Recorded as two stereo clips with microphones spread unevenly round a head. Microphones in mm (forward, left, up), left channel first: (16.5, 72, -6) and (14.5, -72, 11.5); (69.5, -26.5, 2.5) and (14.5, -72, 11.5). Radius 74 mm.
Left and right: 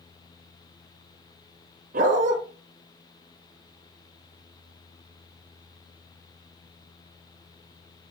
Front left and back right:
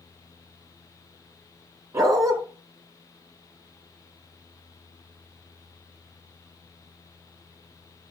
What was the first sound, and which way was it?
A dog barking, 115° right.